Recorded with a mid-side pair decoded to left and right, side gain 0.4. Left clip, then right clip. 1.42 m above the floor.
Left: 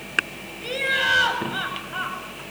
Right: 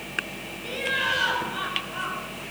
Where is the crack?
No crack in this recording.